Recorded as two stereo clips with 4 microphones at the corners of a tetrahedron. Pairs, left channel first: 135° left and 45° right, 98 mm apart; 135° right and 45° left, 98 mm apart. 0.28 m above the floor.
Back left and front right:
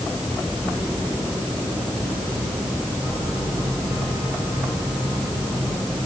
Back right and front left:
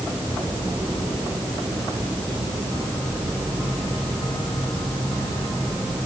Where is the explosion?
I don't hear an explosion.